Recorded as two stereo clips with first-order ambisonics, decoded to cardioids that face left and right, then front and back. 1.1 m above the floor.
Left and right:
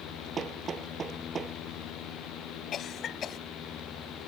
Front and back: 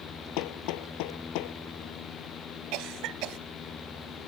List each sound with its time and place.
0.4 s hammering: 20° right
2.7 s a cough: 150° left